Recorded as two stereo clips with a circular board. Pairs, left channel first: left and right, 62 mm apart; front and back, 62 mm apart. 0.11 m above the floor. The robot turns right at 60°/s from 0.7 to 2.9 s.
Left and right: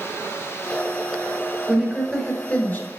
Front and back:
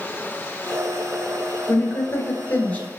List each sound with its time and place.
1.7 s a woman speaking: 10° right, 1.8 m; by 2.9 s 60° left, 1.8 m